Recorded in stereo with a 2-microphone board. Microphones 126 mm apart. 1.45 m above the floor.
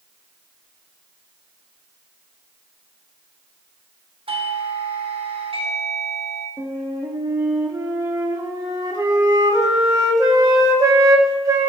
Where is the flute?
30° right (ahead or behind), 2.5 m.